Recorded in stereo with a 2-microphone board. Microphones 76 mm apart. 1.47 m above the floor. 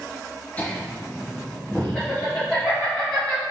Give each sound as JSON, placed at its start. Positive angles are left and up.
{"t": 0.6, "sound": "laughter", "side_deg": 20, "distance_m": 0.5}